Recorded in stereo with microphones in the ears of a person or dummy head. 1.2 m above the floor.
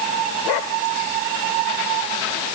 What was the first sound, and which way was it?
Only background noise.